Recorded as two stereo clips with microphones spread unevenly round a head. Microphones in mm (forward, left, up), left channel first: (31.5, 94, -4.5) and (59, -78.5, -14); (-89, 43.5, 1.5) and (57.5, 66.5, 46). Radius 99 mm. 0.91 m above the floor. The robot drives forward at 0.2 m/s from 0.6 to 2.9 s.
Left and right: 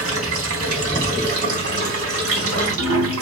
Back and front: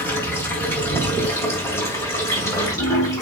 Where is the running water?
90° right, 4 m; by 3.2 s 95° right, 4 m.